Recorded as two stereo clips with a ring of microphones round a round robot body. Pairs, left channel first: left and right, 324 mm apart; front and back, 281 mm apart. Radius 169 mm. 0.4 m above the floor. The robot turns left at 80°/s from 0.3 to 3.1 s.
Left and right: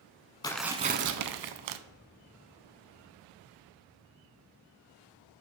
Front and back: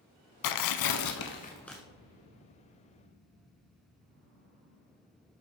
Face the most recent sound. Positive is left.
turn(degrees=160)